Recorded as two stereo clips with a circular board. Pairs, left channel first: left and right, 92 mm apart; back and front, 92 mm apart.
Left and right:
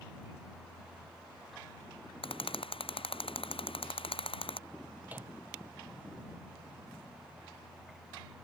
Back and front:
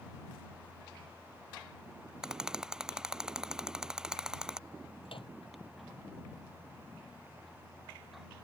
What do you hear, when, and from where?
2.2 s a rattle: 85° left
5.0 s a microwave: 160° right